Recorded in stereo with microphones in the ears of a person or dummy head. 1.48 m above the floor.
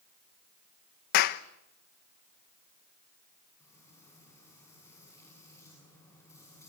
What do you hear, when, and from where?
1.1 s a clap: 65° left (ahead or behind), 1.0 m
3.6 s frying: 20° left (ahead or behind), 7.5 m